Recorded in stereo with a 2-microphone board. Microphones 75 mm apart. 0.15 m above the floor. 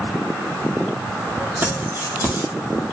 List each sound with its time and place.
1.6 s keys jangling: 30° right (ahead or behind), 3.5 m